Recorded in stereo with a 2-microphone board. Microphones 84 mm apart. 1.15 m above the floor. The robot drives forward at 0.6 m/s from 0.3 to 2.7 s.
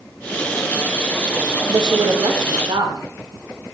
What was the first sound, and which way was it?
A woman speaking, 70° right (ahead or behind).